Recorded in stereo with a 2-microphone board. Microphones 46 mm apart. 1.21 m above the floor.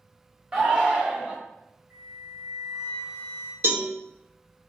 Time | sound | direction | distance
0.5 | a shout | 25° right (ahead or behind) | 0.9 m
1.9 | a flute | 45° right (ahead or behind) | 1.0 m
3.6 | a cowbell | 60° right (ahead or behind) | 1.0 m